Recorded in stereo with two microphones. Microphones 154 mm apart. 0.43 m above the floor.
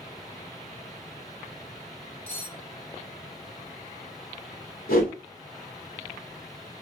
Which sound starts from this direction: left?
A whoosh, at 4.9 s.